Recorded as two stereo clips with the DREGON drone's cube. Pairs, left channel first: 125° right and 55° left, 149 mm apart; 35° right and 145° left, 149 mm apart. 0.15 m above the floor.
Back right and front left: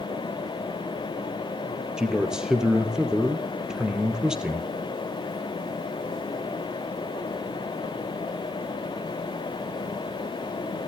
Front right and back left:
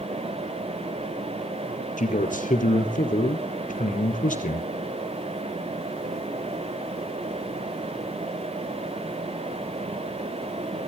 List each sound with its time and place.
2.0 s a man speaking: 30° right, 3.5 m